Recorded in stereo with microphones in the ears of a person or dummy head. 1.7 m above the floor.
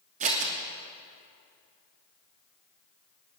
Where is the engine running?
I don't hear an engine running.